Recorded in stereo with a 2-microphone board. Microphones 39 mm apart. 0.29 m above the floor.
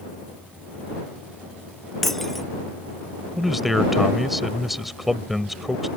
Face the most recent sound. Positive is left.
turn(degrees=-5)  # may be behind; listen again after turning